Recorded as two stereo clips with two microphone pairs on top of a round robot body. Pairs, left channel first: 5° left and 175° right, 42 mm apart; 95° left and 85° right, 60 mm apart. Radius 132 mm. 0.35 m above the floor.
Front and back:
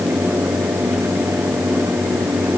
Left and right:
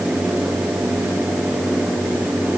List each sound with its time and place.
Only background noise.